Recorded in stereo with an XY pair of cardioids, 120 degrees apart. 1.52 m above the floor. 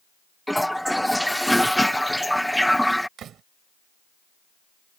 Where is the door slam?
55° right.